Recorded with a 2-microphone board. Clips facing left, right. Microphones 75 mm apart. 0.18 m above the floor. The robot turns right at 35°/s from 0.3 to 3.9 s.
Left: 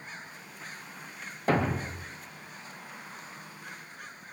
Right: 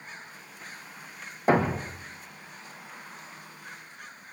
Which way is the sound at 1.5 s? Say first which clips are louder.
Right 4 dB; 20° right (ahead or behind).